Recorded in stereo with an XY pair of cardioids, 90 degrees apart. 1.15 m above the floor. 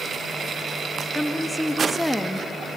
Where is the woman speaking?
5° left, 1.8 m.